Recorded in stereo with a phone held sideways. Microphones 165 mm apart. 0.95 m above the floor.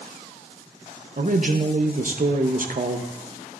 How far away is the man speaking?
About 0.7 m.